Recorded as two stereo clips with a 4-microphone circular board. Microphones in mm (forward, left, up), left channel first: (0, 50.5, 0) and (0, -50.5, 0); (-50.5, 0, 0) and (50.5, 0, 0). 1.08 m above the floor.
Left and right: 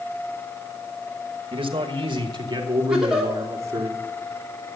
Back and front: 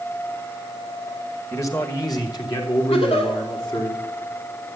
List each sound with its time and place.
1.5 s a man speaking: 120° right, 1.7 m; by 3.9 s 150° right, 3 m
2.9 s a giggle: 175° right, 3 m